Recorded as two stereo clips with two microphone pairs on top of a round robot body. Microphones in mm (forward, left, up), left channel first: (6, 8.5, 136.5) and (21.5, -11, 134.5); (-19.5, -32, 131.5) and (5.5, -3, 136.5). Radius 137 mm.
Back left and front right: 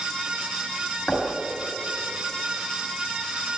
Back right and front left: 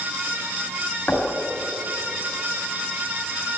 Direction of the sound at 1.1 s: Straight behind.